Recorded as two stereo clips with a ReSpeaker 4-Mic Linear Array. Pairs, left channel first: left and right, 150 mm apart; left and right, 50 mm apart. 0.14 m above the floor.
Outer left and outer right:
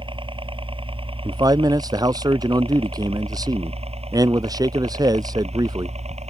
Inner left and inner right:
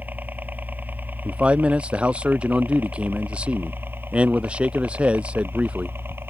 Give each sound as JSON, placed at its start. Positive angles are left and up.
{"t": 0.0, "sound": "a helicopter", "side_deg": -35}
{"t": 1.2, "sound": "a man speaking", "side_deg": -25}